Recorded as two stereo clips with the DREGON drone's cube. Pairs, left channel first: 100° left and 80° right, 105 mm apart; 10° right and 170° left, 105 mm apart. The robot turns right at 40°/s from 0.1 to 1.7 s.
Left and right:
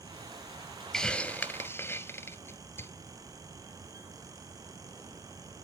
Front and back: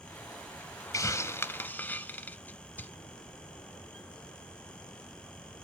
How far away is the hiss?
About 0.6 m.